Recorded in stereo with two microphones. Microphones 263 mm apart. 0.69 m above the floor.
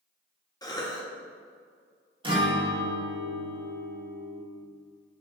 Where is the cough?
15° left (ahead or behind), 1.0 m.